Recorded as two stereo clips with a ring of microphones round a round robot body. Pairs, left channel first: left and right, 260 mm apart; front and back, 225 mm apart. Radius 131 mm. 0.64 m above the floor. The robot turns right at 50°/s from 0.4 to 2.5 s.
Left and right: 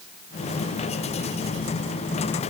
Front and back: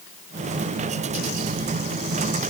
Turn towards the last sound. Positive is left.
No sound to turn to.